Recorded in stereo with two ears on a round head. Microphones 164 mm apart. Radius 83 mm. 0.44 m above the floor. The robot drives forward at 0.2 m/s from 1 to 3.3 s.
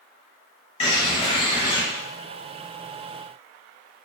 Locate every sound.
0.8 s a bird: 35° left (ahead or behind), 0.8 m; by 1.8 s 30° left (ahead or behind), 0.9 m